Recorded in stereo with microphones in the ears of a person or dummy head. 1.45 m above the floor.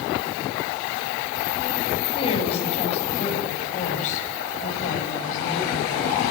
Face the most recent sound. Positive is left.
turn(degrees=55)  # may be behind; listen again after turning